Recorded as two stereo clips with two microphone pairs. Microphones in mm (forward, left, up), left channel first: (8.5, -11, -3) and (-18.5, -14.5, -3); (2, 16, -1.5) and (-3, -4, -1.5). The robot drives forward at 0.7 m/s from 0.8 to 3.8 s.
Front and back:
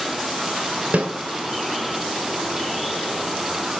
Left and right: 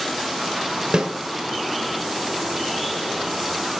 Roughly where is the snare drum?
Behind right.